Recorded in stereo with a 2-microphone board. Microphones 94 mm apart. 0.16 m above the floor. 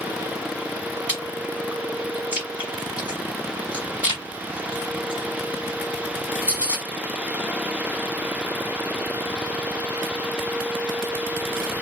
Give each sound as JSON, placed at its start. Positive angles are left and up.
{"t": 1.1, "sound": "chewing", "side_deg": -15, "distance_m": 1.0}